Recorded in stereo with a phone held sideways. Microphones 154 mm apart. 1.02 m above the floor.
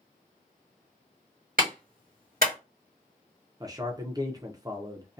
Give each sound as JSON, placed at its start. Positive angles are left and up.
{"t": 1.6, "sound": "a clap", "side_deg": -70, "distance_m": 1.4}
{"t": 3.6, "sound": "a man speaking", "side_deg": -25, "distance_m": 0.5}